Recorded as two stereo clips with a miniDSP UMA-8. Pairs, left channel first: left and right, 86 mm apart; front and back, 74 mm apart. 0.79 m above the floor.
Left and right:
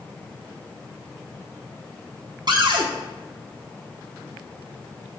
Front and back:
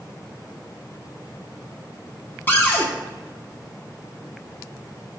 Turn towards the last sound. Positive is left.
turn(degrees=-60)